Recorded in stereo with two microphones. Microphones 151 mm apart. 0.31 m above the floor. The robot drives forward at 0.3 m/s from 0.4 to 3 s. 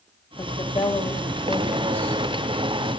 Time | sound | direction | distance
0.4 | a woman speaking | 35° left (ahead or behind) | 1.5 m